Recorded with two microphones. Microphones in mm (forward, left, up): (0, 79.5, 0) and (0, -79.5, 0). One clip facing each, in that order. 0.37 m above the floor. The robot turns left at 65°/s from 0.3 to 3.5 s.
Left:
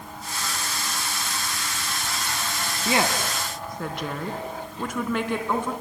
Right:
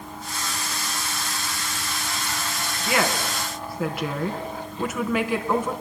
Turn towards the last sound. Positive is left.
turn(degrees=-5)  # may be behind; listen again after turning